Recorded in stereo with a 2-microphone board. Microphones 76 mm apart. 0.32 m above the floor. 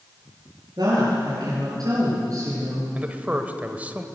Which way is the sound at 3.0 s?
20° right (ahead or behind).